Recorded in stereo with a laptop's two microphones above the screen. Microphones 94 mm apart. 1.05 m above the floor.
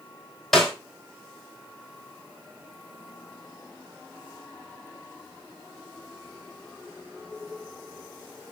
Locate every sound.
0.5 s a snare drum: 5° left (ahead or behind), 3.5 m